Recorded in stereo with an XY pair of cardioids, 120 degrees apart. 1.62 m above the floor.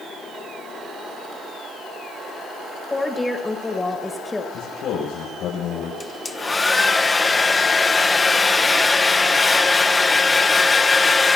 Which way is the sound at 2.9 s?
15° left.